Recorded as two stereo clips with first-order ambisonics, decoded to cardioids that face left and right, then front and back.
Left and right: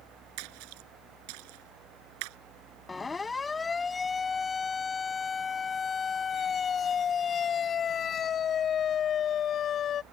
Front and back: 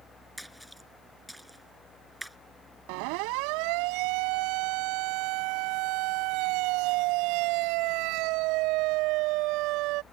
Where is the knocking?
No knocking in this recording.